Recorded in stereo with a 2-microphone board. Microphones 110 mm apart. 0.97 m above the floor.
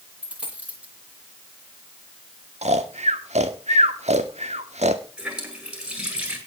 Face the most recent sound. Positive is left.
turn(degrees=-10)  # may be behind; listen again after turning